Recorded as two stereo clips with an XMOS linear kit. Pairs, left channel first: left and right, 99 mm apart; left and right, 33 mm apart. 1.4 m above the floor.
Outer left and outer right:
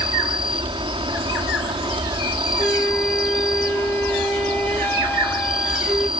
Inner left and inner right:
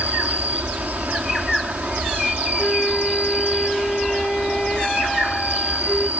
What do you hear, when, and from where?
0.0 s an insect: 60° right (ahead or behind)
2.6 s a flute: 15° left (ahead or behind)